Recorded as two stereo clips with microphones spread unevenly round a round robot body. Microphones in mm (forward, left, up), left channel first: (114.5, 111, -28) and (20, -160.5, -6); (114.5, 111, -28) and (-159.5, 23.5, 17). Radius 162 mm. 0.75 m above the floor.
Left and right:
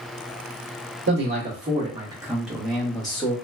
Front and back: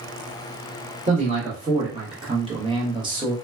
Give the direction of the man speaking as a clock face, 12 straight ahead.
3 o'clock.